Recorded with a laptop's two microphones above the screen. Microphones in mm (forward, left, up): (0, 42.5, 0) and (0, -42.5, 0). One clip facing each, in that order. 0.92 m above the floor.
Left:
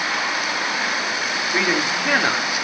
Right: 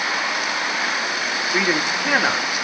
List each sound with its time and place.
1.5 s a man speaking: 5° right (ahead or behind), 2 m